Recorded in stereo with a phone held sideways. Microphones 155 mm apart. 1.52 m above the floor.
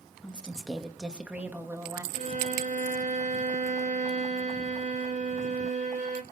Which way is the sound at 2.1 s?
55° right (ahead or behind).